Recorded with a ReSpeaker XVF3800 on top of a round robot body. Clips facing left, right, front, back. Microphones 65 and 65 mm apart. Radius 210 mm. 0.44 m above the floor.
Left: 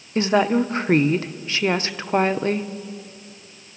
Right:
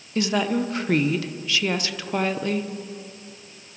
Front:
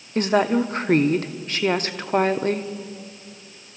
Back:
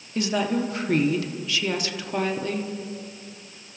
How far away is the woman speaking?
About 1.2 m.